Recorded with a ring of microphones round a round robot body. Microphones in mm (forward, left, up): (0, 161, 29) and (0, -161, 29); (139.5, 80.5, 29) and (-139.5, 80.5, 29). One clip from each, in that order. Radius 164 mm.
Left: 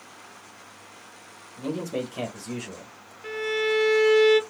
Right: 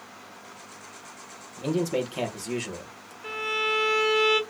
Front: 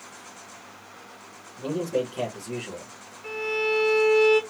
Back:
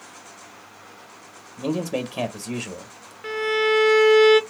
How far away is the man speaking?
About 0.9 m.